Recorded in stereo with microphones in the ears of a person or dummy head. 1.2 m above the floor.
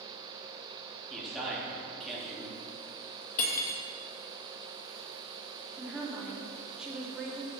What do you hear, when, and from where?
1.1 s a man speaking: centre (ahead or behind), 1.7 m
3.4 s cutlery clinking: 45° left (ahead or behind), 0.7 m
5.8 s a woman speaking: 5° right (ahead or behind), 0.9 m